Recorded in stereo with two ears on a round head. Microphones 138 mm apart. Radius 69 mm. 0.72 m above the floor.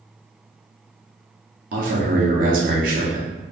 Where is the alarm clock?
No alarm clock in this recording.